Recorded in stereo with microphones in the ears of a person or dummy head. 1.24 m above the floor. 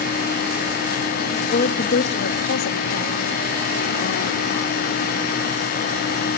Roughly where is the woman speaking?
Left.